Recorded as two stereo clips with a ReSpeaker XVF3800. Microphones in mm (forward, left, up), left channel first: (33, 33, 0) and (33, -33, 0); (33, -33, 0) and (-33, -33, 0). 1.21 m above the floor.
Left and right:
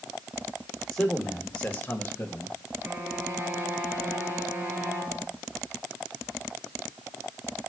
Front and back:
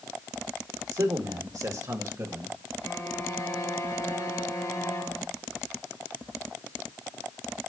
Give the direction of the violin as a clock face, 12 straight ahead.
1 o'clock.